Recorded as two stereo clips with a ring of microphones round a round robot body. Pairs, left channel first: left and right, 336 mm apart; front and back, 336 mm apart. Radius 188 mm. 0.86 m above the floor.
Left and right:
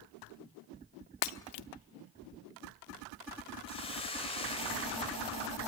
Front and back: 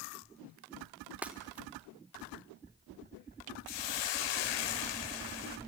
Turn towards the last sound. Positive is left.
turn(degrees=15)